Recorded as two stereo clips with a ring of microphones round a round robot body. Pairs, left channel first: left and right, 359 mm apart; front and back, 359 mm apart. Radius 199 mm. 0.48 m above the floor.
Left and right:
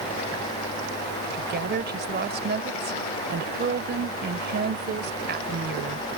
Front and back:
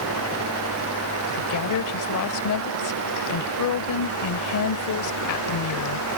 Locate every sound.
1.4 s a woman speaking: 30° right